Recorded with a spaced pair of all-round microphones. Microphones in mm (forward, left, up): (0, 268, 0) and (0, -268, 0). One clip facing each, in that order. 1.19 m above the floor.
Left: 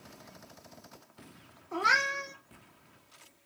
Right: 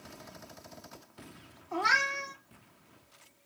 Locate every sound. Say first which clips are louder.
1.7 s a cat meowing: even; 20° right (ahead or behind), 0.8 m